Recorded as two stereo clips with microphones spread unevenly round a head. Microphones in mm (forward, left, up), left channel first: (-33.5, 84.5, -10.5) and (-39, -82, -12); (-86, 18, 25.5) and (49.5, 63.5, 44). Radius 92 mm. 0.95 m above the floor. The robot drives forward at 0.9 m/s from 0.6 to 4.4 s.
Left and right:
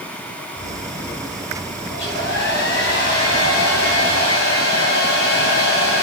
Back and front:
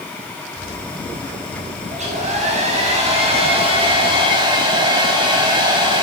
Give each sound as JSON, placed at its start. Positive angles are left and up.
{"t": 1.9, "sound": "a hair dryer", "azimuth_deg": 55, "distance_m": 6.5}